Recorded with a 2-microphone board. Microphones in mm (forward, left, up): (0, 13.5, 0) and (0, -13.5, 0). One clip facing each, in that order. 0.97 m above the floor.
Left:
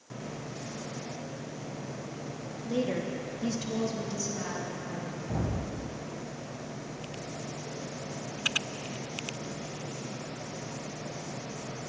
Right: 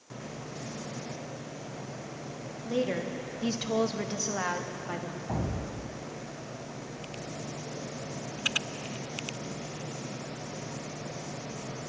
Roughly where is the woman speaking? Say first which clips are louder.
Right 1 dB; centre.